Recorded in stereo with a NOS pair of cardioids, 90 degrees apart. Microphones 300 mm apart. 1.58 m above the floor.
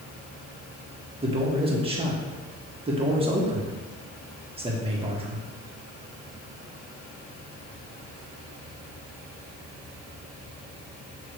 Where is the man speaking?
20° right, 1.7 m.